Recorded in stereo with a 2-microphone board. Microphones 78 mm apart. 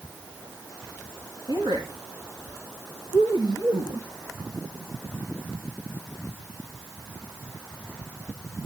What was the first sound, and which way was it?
A woman speaking, 70° right (ahead or behind).